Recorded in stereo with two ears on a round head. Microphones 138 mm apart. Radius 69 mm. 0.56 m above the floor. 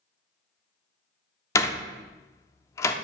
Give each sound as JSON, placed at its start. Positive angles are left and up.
{"t": 1.6, "sound": "a door slam", "side_deg": 20, "distance_m": 0.6}